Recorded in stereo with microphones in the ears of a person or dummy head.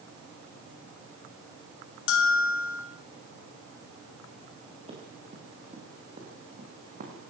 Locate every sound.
2.1 s a bell: 70° left (ahead or behind), 4 m
4.9 s running footsteps: 30° right (ahead or behind), 9 m; by 7.2 s 45° right (ahead or behind), 8.5 m